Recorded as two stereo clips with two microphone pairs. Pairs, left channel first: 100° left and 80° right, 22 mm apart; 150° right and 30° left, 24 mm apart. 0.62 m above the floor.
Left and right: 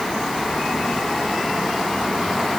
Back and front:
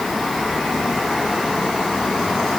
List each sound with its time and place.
Only background noise.